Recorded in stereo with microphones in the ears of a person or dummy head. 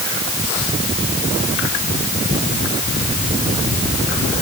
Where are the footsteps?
No footsteps in this recording.